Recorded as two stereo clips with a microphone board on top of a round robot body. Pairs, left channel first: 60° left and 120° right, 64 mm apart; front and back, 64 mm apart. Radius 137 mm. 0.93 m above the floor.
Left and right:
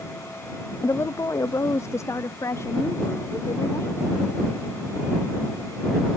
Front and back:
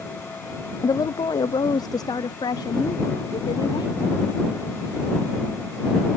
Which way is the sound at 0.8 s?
15° left.